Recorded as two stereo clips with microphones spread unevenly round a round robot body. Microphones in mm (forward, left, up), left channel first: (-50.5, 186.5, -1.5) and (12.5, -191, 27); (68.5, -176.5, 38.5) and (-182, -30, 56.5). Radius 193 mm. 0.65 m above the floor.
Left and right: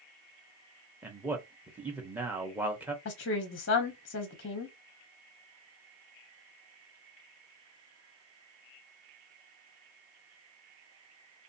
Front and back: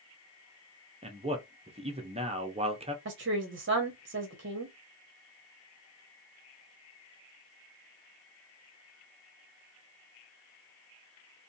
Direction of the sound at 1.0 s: 170° right.